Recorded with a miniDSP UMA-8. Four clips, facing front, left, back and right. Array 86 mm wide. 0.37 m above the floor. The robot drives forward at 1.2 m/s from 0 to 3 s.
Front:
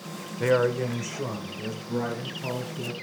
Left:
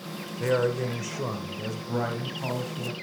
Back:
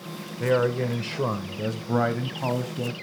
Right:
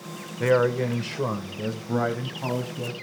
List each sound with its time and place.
0.4 s a man speaking: 60° right, 1.2 m; by 2.9 s 170° right, 3 m